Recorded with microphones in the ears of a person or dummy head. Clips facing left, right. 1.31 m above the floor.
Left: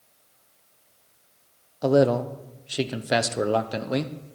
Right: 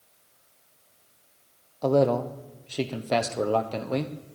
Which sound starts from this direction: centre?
A man speaking, at 1.8 s.